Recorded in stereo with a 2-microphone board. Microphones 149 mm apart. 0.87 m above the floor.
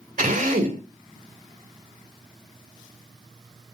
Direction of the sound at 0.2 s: 65° right (ahead or behind).